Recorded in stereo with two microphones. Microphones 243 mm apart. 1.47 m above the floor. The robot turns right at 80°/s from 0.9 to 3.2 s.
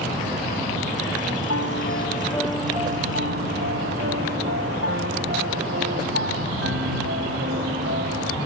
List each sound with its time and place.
1.5 s a piano: 100° left; by 8.3 s 125° right